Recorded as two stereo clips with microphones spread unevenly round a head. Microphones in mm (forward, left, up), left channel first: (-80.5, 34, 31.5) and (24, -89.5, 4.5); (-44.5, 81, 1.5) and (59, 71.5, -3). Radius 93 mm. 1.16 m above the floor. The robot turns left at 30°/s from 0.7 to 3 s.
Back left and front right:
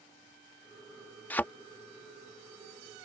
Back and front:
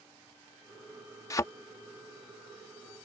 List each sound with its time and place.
1.3 s a thud: 175° right